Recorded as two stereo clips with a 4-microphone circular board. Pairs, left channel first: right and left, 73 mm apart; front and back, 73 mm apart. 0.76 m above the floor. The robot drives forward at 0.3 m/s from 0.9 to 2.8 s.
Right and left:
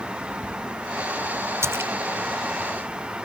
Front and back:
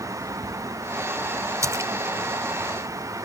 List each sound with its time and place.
1.6 s a splash: 140° left